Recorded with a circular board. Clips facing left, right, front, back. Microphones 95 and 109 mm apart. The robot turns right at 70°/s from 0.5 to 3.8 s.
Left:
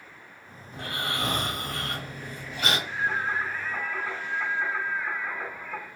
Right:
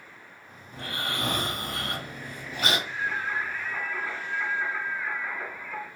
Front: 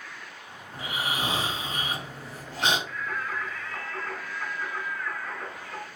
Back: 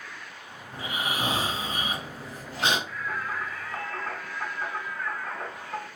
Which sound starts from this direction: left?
Singing, at 2.9 s.